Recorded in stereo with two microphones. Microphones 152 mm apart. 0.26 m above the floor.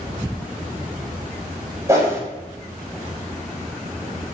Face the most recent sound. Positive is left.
turn(degrees=-20)  # may be behind; listen again after turning